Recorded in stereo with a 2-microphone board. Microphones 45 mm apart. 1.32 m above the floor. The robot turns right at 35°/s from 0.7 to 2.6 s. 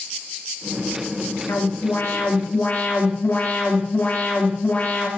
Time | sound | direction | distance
1.5 | an alarm | 95° left | 2.5 m